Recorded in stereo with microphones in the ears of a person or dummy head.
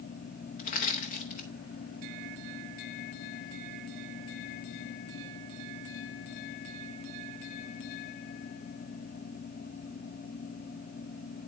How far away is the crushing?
About 0.7 m.